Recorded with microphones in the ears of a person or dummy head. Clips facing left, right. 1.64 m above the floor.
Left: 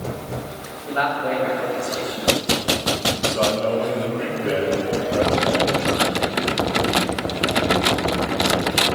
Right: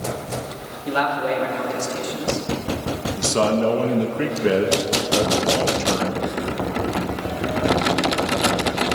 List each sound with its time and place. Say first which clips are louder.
0.9 s a man speaking: right 1 dB; 85° right, 4 m
3.2 s a man speaking: right 5 dB; 65° right (ahead or behind), 1.5 m